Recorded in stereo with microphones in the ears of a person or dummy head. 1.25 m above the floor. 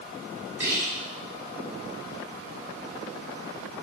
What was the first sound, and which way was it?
Whispering, 10° right (ahead or behind).